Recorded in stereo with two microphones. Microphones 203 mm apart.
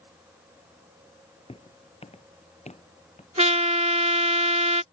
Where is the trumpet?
35° right (ahead or behind).